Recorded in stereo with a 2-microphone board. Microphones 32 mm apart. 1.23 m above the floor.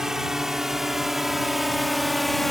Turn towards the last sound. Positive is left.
turn(degrees=5)  # may be behind; listen again after turning